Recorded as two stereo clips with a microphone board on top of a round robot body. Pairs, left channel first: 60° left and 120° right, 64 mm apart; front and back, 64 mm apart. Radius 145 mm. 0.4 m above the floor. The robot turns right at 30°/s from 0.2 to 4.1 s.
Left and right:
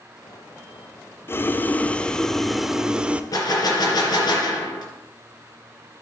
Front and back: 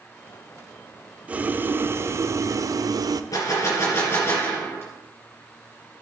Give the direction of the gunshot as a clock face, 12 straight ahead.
11 o'clock.